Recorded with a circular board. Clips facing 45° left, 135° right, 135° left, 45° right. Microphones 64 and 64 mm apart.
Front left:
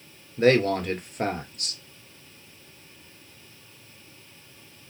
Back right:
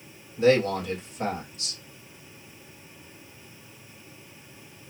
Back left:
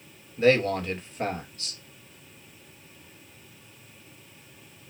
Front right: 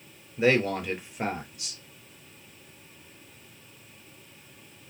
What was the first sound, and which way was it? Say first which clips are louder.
A man speaking: front left 1 dB, back left 2 dB; 30° left.